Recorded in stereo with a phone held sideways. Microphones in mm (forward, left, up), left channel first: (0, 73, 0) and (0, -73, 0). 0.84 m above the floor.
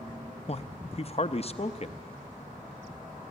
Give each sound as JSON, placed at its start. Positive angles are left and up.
{"t": 0.5, "sound": "a man speaking", "side_deg": 45, "distance_m": 0.7}